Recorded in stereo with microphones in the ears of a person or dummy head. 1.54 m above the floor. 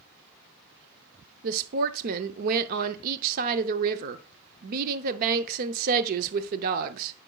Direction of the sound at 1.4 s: 50° right (ahead or behind).